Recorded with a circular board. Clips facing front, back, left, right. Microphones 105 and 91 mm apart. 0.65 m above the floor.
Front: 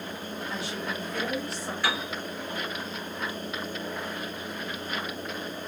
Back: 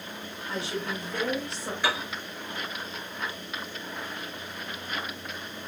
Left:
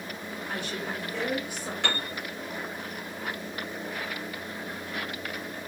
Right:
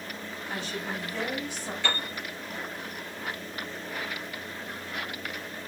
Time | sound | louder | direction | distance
0.5 | a woman speaking | back 4 dB, even | 115° left | 2.5 m
1.8 | a piano | back 1 dB, even | 105° left | 2 m